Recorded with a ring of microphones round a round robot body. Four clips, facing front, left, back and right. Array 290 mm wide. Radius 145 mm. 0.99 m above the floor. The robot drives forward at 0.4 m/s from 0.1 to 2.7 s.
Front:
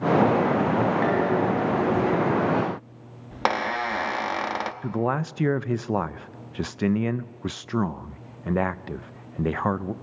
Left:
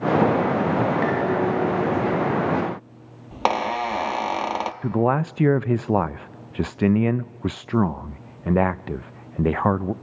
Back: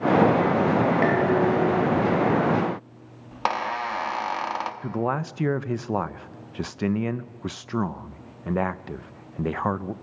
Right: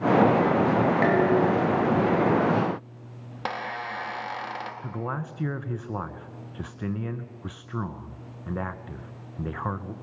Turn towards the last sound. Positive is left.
turn(degrees=80)